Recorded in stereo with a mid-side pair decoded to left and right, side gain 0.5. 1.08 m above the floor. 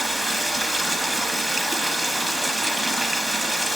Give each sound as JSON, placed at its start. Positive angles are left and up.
{"t": 0.0, "sound": "running water", "azimuth_deg": -15, "distance_m": 0.9}